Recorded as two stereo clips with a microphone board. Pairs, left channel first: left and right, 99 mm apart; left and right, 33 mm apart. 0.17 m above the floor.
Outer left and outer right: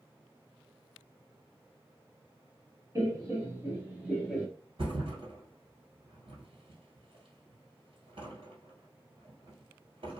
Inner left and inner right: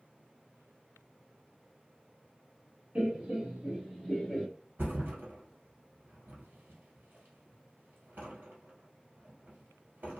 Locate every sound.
3.0 s laughter: 35° right (ahead or behind), 1.6 m; by 4.5 s 5° right (ahead or behind), 1.4 m
4.8 s a thud: 65° right (ahead or behind), 1.6 m